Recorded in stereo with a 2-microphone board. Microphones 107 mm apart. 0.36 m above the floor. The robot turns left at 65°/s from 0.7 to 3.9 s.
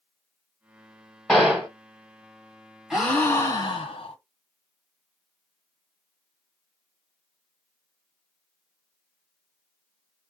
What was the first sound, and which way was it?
A gunshot, 5° left (ahead or behind).